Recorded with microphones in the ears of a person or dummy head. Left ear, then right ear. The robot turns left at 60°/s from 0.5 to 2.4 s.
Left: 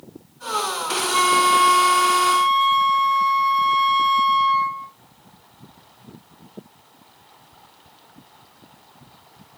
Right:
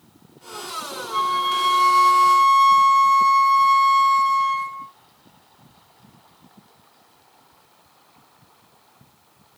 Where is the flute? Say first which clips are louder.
Left 4 dB; 20° right, 1.1 m; by 4.9 s 100° right, 1.1 m.